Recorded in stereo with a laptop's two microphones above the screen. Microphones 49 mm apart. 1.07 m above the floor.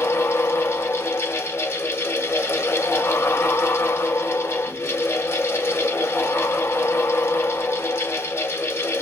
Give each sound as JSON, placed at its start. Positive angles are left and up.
{"t": 0.0, "sound": "a fan", "side_deg": 60, "distance_m": 1.9}